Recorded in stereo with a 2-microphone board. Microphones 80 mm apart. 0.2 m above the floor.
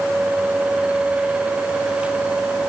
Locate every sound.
Only background noise.